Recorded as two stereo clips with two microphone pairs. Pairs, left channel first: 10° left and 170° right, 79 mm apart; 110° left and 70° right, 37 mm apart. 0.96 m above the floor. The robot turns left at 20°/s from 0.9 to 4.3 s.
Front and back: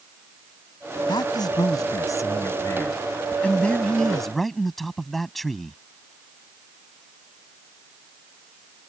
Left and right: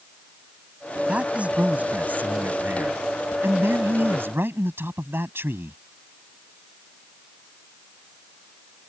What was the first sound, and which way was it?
A man speaking, 15° right.